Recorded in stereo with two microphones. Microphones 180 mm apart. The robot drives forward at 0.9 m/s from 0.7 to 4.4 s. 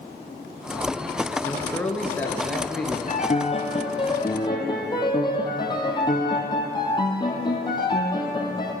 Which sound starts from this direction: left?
A piano, at 3.1 s.